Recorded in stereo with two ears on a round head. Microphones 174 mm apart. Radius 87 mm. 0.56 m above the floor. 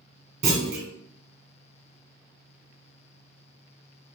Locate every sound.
0.4 s a clunk: 40° right (ahead or behind), 1.2 m